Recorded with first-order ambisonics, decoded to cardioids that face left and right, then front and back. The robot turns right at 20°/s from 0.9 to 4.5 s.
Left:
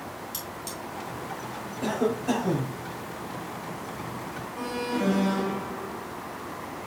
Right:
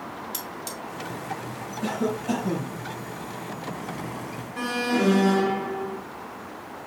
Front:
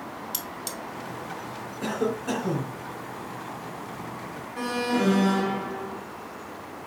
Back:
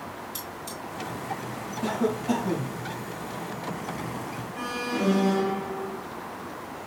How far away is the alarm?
About 0.8 m.